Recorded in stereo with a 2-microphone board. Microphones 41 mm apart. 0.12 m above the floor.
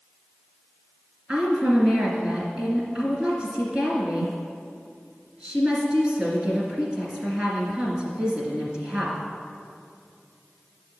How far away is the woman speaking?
About 2 m.